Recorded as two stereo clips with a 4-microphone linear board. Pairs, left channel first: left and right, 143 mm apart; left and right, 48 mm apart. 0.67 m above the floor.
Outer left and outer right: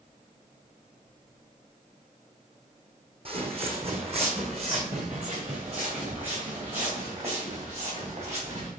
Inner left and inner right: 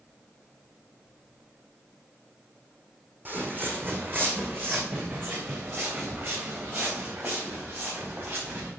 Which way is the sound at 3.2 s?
40° right (ahead or behind).